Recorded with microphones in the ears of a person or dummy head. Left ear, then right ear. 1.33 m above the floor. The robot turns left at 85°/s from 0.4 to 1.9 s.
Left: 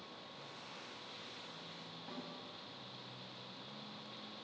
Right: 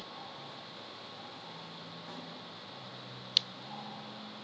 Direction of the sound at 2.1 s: 20° right (ahead or behind).